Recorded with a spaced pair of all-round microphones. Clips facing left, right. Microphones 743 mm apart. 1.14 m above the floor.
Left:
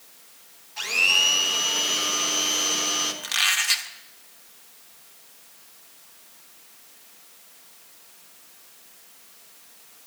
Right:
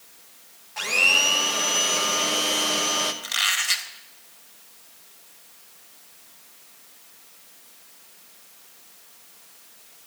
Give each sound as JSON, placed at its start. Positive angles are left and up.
{"t": 0.8, "sound": "a blender", "side_deg": -70, "distance_m": 1.2}
{"t": 3.2, "sound": "a squeak", "side_deg": 30, "distance_m": 0.8}